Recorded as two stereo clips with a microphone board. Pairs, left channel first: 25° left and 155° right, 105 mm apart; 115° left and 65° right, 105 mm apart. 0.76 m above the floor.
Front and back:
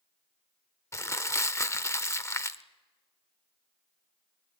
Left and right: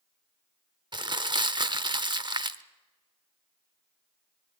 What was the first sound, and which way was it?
Crumpling, 35° right.